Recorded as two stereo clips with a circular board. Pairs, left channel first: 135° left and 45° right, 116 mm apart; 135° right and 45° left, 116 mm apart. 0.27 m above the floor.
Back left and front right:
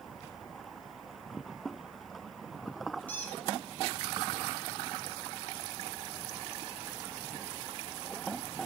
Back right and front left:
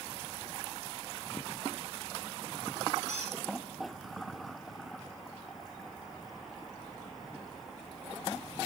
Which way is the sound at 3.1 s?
60° left.